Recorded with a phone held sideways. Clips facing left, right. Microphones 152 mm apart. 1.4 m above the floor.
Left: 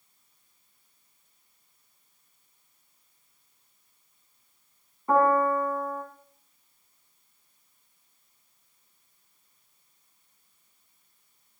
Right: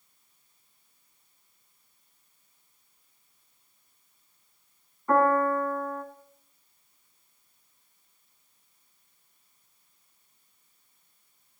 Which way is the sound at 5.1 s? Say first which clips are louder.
Left 1 dB; 15° left (ahead or behind).